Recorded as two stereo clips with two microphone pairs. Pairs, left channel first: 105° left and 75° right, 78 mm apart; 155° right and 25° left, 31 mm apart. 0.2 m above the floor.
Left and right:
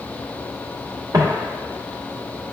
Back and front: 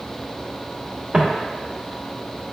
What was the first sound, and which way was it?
Footsteps, 35° right.